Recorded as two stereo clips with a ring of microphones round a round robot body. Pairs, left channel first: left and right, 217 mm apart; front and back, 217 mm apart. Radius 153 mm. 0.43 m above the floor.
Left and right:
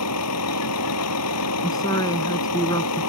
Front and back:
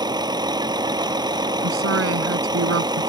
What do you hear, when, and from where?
0.0 s a vehicle: 110° left
1.6 s a woman speaking: 170° left